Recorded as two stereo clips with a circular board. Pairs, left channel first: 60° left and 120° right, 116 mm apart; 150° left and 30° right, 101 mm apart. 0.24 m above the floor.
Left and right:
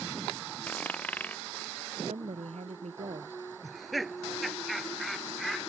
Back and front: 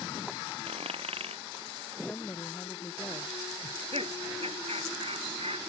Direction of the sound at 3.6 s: 30° right.